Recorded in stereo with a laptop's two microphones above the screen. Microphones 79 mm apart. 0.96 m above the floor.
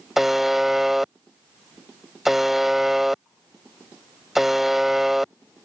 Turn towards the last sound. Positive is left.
turn(degrees=-5)  # may be behind; listen again after turning